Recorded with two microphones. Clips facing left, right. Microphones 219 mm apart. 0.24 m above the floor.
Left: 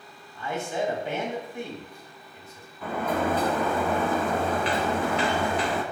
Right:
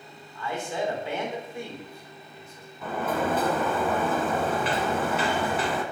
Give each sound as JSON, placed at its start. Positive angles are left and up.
{"t": 0.3, "sound": "a man speaking", "side_deg": 20, "distance_m": 1.4}
{"t": 2.8, "sound": "a sliding door", "side_deg": -5, "distance_m": 1.0}